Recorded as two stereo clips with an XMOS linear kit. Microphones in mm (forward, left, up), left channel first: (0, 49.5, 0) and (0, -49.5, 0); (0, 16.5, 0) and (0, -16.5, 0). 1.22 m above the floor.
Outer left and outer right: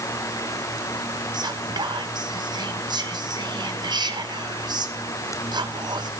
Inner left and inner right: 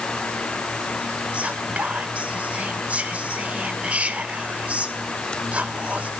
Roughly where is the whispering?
Right.